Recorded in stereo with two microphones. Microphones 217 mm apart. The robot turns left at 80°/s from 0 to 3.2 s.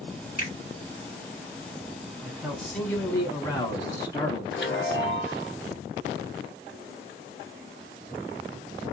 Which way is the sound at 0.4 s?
40° left (ahead or behind).